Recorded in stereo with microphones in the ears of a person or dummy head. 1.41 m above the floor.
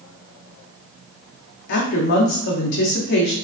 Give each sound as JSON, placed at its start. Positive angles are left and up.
{"t": 1.7, "sound": "a woman speaking", "side_deg": 55, "distance_m": 0.7}